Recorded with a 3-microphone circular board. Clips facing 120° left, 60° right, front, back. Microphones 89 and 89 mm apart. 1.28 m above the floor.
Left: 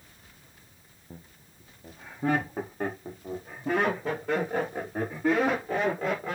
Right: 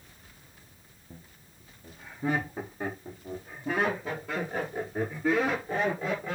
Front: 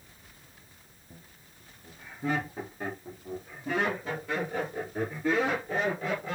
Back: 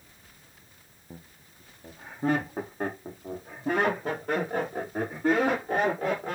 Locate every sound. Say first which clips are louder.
1.1 s laughter: left 3 dB, back 6 dB; 155° left, 0.7 m; by 6.4 s 140° left, 3.5 m